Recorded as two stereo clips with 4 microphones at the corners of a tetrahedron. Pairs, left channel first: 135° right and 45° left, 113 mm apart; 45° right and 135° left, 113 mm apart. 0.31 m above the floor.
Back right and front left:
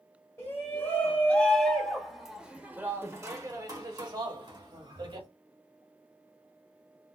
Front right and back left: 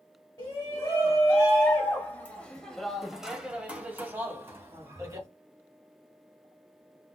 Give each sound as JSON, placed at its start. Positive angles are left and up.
{"t": 0.4, "sound": "a shout", "azimuth_deg": -80, "distance_m": 1.8}